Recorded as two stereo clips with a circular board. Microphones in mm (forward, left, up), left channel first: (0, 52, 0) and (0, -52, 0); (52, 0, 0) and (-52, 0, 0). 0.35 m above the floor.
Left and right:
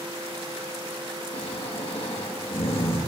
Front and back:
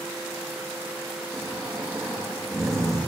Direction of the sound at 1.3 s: 115° left.